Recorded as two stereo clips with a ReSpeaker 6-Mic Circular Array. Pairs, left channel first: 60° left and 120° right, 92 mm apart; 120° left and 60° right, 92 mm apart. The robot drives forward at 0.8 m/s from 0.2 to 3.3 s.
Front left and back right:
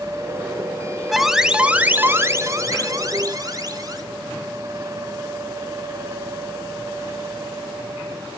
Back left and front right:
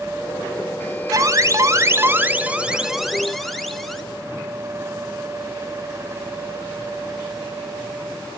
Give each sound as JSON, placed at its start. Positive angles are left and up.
{"t": 1.1, "sound": "an alarm", "azimuth_deg": -30, "distance_m": 1.3}